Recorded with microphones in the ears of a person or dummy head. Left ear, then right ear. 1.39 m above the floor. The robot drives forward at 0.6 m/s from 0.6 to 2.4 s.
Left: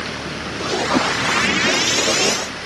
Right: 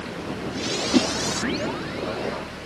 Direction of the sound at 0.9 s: 65° right (ahead or behind).